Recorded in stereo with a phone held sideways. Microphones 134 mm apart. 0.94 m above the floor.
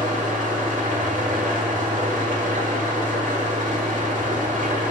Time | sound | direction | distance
0.0 | an engine running | 70° right (ahead or behind) | 1.6 m